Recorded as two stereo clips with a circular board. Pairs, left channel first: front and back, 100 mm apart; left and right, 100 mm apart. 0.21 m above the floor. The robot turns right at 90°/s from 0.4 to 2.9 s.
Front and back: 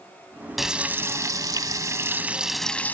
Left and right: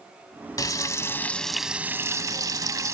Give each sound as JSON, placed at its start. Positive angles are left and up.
{"t": 0.6, "sound": "frying", "azimuth_deg": 90, "distance_m": 0.9}